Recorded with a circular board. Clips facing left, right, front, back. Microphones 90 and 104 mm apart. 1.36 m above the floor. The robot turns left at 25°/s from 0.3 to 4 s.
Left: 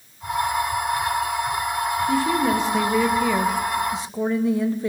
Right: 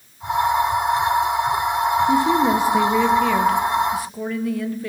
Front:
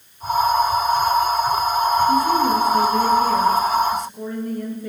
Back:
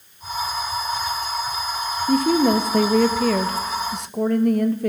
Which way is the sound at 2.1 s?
155° right.